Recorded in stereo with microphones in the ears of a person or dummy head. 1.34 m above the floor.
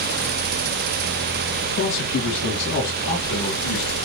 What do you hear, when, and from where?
1.8 s a man speaking: 65° left (ahead or behind), 1.9 m; by 4.0 s 45° left (ahead or behind), 2.5 m